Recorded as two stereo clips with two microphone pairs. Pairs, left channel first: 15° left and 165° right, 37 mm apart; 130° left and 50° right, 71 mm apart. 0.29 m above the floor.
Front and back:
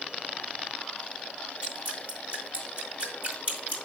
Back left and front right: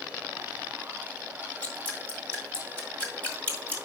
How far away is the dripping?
About 1.8 m.